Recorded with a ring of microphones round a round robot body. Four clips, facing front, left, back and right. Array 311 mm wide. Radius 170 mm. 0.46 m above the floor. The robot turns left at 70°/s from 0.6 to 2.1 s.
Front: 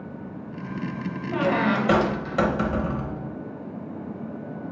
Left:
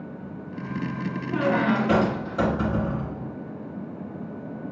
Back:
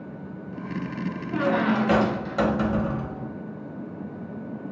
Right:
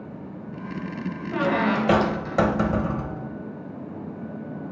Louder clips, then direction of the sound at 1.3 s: Even, even; 25° right.